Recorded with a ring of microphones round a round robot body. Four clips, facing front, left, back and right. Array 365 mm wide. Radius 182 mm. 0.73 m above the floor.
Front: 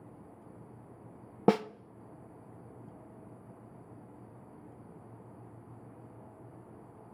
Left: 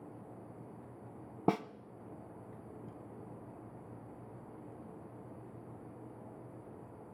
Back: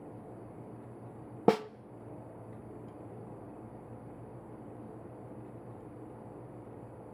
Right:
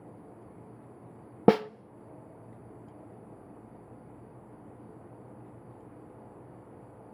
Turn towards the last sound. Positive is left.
turn(degrees=-85)